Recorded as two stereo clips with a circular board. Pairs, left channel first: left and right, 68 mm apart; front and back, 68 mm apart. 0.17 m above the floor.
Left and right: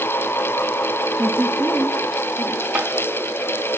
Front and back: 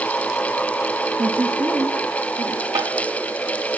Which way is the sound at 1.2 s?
170° left.